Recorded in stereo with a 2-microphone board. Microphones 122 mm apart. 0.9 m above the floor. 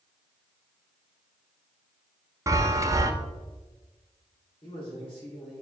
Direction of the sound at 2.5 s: 25° right (ahead or behind).